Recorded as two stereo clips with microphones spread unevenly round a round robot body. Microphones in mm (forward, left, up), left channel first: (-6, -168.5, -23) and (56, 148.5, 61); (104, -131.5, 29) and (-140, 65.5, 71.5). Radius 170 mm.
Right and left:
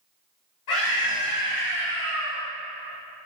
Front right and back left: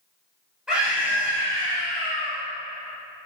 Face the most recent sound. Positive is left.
turn(degrees=-145)